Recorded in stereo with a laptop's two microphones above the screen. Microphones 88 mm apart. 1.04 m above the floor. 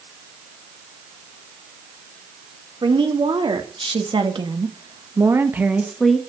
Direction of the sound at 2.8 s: 75° right (ahead or behind).